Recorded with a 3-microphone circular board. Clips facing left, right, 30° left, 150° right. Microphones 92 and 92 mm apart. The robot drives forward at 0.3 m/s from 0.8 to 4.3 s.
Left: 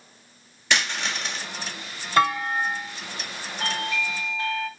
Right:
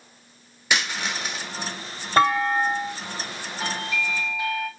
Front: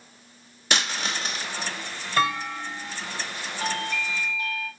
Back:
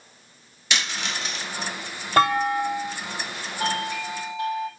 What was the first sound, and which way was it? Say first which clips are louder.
A dropped coin: even, front 1 dB; 10° right.